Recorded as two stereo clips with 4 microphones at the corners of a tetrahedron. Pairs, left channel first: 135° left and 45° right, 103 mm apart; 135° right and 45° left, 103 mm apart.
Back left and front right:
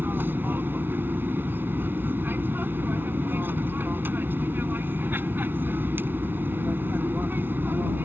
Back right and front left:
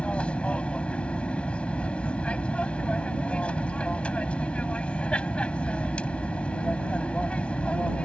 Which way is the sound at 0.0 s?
75° right.